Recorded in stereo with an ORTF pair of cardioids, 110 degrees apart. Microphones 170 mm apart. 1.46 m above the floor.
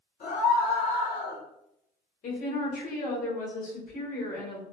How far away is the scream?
About 1.9 m.